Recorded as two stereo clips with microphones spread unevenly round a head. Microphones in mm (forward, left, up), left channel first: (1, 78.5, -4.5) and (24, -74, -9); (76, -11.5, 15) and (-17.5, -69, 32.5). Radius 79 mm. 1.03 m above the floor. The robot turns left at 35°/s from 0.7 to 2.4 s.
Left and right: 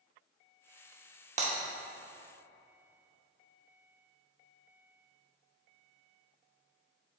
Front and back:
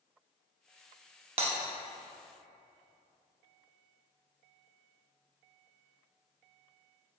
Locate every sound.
1.4 s breaking glass: 130° right, 1.1 m; by 1.5 s 135° right, 1.1 m